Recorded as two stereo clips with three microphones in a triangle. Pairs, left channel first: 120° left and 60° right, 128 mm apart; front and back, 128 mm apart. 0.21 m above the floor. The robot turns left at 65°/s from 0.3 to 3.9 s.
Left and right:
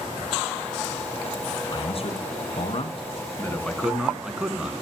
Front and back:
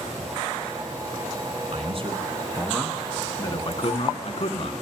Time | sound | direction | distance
1.7 | a man speaking | 165° left | 2.5 m